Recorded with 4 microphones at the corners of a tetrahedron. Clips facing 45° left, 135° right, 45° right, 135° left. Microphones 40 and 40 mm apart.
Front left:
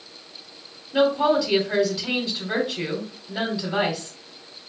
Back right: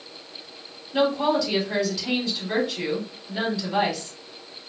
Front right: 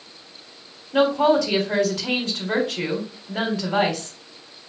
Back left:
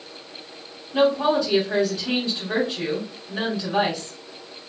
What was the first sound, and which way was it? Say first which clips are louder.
A woman speaking: front left 2 dB, front right 2 dB; 30° right.